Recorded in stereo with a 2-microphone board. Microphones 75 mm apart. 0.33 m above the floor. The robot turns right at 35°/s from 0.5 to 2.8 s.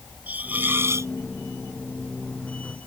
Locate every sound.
0.3 s a hiss: 25° right (ahead or behind); by 1.1 s 45° right (ahead or behind)